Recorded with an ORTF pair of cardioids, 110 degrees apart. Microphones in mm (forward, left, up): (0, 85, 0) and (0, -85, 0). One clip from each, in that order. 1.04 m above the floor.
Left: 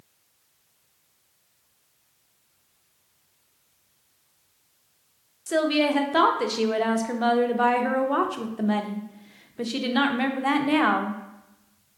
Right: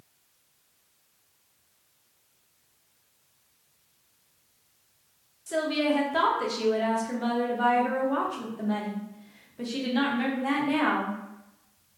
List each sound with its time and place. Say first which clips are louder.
5.5 s a woman speaking: left 4 dB; 30° left, 0.5 m